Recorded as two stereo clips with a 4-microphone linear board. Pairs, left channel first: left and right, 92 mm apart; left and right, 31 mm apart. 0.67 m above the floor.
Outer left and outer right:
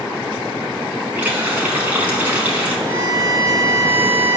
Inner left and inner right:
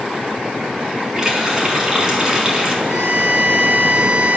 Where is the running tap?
15° right (ahead or behind), 5 m.